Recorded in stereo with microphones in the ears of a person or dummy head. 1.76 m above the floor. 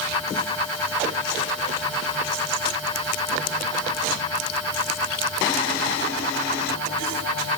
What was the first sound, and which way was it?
Only background noise.